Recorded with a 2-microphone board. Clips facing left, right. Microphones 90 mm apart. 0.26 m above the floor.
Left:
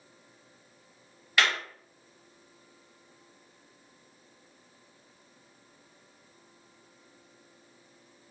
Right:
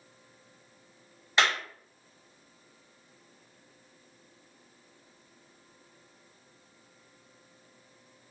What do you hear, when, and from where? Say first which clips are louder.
1.4 s a clap: right 1 dB; 25° right (ahead or behind), 0.8 m